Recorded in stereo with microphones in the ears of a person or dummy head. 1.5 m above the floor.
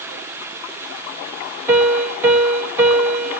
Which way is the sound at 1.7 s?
10° right (ahead or behind).